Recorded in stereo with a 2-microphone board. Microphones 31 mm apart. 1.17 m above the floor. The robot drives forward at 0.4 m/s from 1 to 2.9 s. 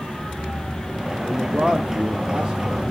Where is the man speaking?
35° right (ahead or behind), 2.5 m; by 2.8 s 25° right (ahead or behind), 3 m.